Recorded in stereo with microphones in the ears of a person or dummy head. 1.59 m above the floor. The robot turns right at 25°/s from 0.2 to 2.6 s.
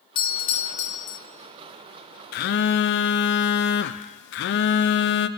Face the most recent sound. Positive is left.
turn(degrees=70)  # may be behind; listen again after turning